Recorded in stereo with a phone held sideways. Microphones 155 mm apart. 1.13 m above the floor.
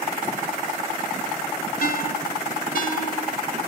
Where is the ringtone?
70° left (ahead or behind), 2.5 m.